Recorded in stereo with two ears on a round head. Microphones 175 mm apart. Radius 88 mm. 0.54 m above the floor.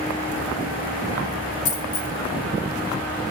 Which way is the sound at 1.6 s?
85° left.